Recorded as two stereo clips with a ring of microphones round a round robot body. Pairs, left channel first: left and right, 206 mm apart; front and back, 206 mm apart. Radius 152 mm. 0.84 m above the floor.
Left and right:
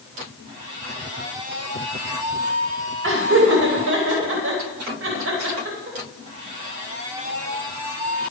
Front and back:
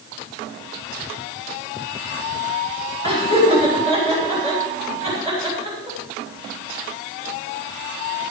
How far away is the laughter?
About 3.5 m.